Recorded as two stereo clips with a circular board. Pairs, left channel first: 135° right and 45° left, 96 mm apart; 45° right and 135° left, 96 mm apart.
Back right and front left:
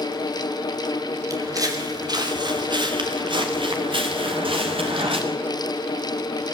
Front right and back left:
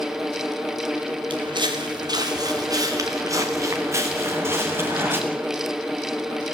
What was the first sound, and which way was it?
Footsteps, 100° left.